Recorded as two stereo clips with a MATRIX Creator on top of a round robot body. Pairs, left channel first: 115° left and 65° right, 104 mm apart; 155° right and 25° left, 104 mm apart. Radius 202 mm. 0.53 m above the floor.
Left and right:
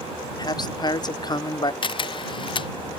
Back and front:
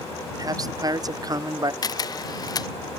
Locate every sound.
0.4 s a man speaking: 70° left
1.8 s a camera shutter: 150° left